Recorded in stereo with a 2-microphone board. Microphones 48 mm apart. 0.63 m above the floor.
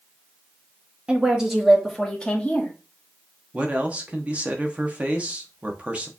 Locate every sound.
1.1 s a woman speaking: 20° right (ahead or behind), 1.2 m; by 2.7 s 30° left (ahead or behind), 1.4 m
3.5 s a man speaking: 25° right (ahead or behind), 0.8 m